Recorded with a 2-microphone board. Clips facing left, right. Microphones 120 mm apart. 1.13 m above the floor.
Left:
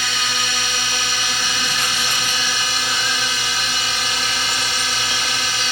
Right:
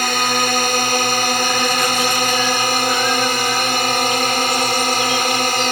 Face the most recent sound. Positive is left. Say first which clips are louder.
# right 8 dB
turn(degrees=-55)  # may be behind; listen again after turning